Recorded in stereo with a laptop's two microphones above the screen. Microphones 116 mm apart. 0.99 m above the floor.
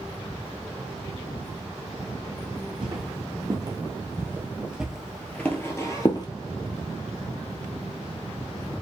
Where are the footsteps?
40° right (ahead or behind), 1.8 m; by 6.3 s 35° left (ahead or behind), 1.1 m.